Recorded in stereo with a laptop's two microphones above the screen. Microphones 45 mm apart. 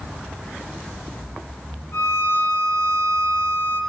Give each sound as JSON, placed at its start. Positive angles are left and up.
{"t": 1.9, "sound": "a violin", "side_deg": 75, "distance_m": 4.0}